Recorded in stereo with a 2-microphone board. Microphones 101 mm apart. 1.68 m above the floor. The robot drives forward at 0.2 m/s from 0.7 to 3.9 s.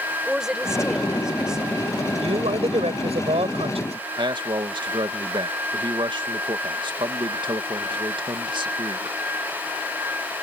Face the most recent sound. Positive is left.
turn(degrees=-50)  # may be behind; listen again after turning